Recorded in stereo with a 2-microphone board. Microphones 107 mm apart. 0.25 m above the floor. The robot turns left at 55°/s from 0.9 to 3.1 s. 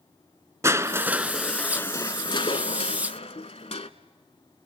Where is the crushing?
150° right, 0.9 m; by 3.9 s 85° left, 0.9 m.